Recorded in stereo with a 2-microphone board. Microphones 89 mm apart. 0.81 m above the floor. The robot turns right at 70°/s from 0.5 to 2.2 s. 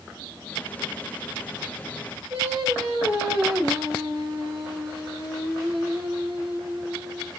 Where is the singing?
30° right (ahead or behind), 2.5 m.